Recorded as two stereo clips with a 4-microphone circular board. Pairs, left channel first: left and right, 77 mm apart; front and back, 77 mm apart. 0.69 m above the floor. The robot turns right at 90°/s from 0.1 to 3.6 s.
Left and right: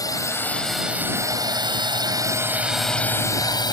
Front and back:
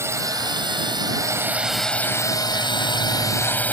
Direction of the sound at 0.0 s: 125° left.